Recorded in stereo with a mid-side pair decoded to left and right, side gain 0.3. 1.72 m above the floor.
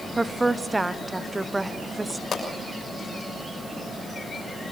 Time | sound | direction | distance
0.2 | a woman speaking | 25° right | 1.1 m
2.3 | a pop | 60° left | 6.5 m